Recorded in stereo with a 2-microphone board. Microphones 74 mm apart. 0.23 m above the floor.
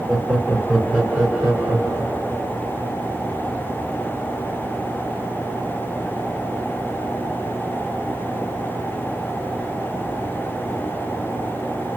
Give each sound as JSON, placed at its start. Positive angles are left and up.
{"t": 0.1, "sound": "laughter", "side_deg": -15, "distance_m": 2.5}